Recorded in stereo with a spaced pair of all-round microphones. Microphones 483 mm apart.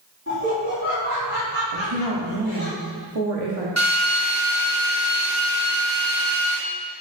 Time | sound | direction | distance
0.3 | laughter | 30° right (ahead or behind) | 3.5 m
1.7 | a woman speaking | 85° right | 1.8 m
3.8 | a drill | 35° right (ahead or behind) | 2.5 m